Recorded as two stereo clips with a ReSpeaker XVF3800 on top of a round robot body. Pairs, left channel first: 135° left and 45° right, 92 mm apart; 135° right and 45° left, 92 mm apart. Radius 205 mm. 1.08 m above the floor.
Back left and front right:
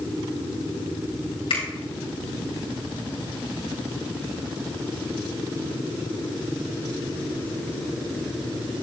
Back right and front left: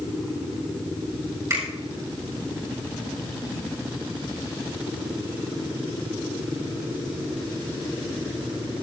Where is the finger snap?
105° left, 4.5 m.